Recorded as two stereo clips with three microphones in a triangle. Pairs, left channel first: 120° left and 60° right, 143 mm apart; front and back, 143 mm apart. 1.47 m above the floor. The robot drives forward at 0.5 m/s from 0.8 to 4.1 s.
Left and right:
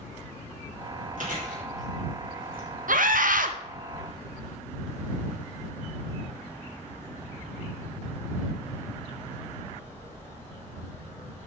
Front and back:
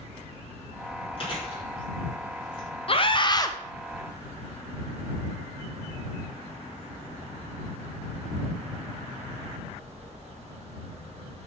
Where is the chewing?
50° right, 3.5 m; by 2.7 s 60° right, 3 m.